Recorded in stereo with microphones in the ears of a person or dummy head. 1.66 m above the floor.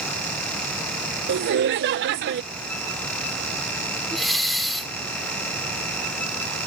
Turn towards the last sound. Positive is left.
turn(degrees=0)  # may be behind; listen again after turning